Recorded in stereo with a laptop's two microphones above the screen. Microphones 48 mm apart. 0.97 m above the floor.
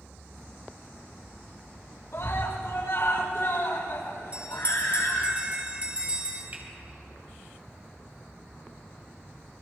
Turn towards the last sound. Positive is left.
turn(degrees=-40)  # may be behind; listen again after turning